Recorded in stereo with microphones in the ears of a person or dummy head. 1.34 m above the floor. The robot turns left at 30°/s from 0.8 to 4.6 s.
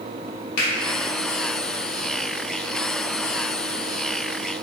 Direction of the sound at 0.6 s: 60° left (ahead or behind).